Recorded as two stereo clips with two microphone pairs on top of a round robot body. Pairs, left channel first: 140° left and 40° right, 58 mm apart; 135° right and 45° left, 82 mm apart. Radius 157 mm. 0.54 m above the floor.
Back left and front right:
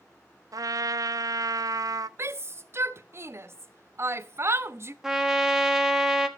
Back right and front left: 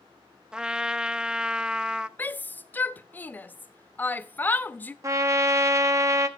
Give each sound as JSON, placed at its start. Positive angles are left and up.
{"t": 0.5, "sound": "a trumpet", "azimuth_deg": -35, "distance_m": 0.6}
{"t": 2.2, "sound": "a shout", "azimuth_deg": -70, "distance_m": 0.9}
{"t": 5.0, "sound": "a trumpet", "azimuth_deg": 40, "distance_m": 1.3}